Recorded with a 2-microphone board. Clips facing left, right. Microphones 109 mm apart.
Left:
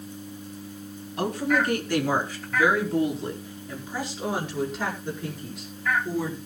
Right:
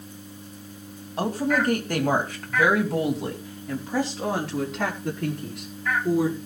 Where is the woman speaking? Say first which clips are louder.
Right 1 dB; 30° right (ahead or behind), 2.5 m; by 6.4 s 65° right (ahead or behind), 5 m.